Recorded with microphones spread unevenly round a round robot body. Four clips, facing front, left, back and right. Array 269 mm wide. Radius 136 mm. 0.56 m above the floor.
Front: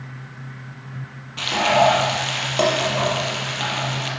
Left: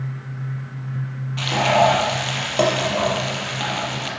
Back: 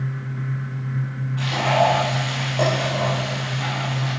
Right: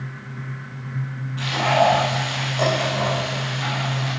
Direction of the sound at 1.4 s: 45° left.